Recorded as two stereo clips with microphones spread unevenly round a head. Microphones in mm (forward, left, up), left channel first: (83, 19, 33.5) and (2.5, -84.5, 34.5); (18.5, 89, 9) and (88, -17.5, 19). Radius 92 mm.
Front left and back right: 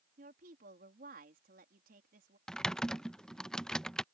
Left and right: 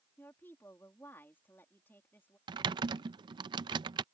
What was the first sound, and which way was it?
A woman speaking, 160° right.